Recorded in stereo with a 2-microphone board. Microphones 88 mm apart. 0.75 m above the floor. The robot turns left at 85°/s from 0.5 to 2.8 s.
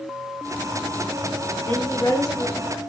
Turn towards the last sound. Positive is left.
turn(degrees=45)